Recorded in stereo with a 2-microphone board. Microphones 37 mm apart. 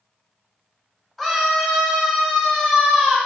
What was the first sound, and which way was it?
A scream, 5° left (ahead or behind).